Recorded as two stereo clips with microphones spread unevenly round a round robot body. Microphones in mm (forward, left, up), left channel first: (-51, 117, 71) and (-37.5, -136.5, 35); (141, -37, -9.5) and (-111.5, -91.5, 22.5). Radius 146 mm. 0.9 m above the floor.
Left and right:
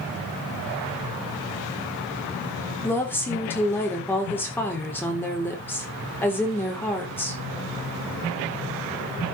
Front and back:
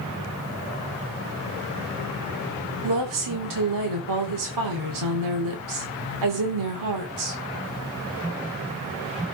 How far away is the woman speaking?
About 3.5 m.